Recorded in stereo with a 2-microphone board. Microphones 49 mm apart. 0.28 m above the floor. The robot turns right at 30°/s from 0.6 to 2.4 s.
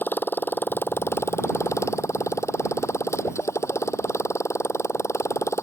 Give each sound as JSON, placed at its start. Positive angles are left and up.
{"t": 0.0, "sound": "a motorcycle", "azimuth_deg": 45}